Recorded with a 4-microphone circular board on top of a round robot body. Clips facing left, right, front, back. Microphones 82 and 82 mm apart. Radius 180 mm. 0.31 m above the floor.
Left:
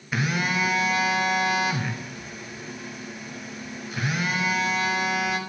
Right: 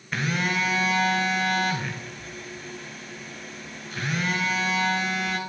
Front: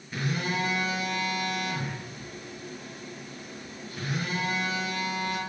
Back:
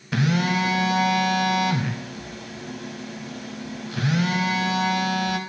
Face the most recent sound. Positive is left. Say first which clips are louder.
# left 1 dB, back 8 dB
turn(degrees=175)